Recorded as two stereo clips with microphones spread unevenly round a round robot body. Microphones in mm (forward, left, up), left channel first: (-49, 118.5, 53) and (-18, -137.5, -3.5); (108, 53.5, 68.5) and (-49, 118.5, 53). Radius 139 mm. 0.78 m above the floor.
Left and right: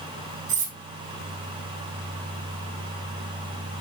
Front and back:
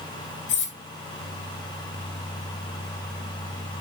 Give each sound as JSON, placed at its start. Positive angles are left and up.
{"t": 0.5, "sound": "cutlery clinking", "azimuth_deg": -20, "distance_m": 3.0}